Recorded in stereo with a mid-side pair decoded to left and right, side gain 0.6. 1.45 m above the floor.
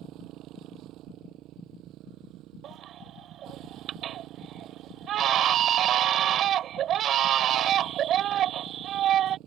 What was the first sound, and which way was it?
A motorcycle, 60° right.